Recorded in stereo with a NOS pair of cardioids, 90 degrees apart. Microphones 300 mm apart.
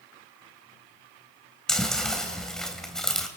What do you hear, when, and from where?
1.7 s chewing: straight ahead, 3 m